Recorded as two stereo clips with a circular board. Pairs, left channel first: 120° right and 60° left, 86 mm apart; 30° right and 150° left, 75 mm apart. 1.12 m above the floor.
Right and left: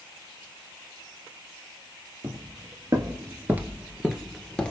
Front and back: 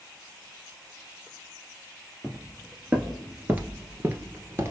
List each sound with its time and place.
2.2 s footsteps: 65° left, 1.6 m; by 4.7 s 170° left, 1.3 m